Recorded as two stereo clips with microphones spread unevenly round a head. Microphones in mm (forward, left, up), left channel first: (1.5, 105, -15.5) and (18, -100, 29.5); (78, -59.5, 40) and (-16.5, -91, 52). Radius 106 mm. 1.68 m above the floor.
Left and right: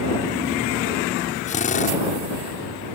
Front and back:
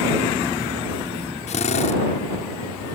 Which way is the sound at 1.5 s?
35° left.